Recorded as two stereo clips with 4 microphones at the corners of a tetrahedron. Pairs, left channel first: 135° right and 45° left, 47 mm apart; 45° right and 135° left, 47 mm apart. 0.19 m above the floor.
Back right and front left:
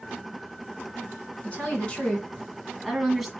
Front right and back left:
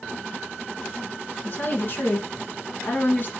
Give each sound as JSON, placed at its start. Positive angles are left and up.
{"t": 1.4, "sound": "a woman speaking", "azimuth_deg": -80, "distance_m": 2.0}